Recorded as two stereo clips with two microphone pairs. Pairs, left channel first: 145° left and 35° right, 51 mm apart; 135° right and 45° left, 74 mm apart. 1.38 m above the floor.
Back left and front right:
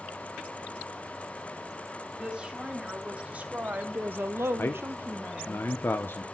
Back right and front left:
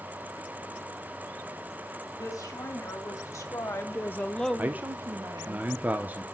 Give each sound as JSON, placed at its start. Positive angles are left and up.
{"t": 2.2, "sound": "a woman speaking", "azimuth_deg": -105, "distance_m": 3.0}
{"t": 4.6, "sound": "a man speaking", "azimuth_deg": 105, "distance_m": 0.6}